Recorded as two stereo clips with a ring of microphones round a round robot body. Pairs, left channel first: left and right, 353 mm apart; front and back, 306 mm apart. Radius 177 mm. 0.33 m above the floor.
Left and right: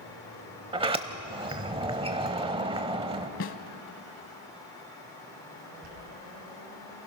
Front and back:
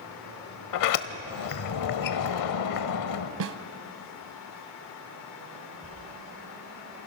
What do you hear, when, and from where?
0.7 s a sliding door: 15° right, 0.8 m
3.4 s a snare drum: 150° left, 0.8 m
5.8 s a dropped coin: 70° right, 3.5 m